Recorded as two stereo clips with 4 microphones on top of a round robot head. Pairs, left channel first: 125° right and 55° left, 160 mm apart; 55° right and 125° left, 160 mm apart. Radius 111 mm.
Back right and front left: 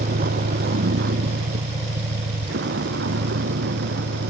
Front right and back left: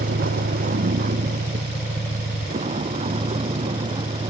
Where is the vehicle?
90° left; by 4.3 s 65° left.